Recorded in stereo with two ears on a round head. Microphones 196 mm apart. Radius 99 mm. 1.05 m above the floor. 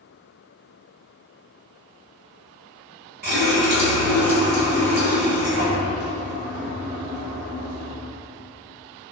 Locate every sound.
3.2 s a running tap: 45° right (ahead or behind), 1.1 m